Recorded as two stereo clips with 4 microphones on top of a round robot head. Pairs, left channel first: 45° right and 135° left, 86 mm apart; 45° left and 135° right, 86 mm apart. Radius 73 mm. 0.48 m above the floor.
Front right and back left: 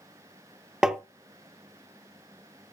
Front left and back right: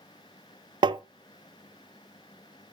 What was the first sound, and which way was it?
Tapping, 145° right.